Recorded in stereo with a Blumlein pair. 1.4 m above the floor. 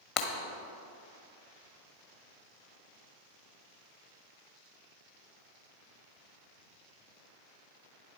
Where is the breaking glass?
35° left, 1.4 m.